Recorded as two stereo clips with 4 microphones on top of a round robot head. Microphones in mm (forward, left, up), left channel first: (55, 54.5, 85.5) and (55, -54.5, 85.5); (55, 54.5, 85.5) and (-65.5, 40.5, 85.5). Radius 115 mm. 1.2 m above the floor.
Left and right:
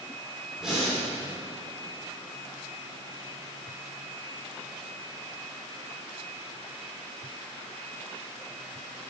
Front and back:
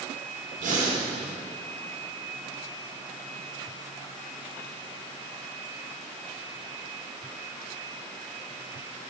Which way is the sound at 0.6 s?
175° right.